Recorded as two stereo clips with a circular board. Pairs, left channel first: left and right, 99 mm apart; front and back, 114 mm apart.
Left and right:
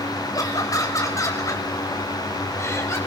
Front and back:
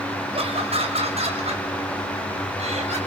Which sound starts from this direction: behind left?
Laughter, at 0.3 s.